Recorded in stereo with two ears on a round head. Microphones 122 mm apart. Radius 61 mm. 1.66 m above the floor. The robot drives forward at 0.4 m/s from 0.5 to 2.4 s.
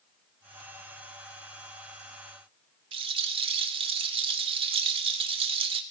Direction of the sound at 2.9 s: 40° right (ahead or behind).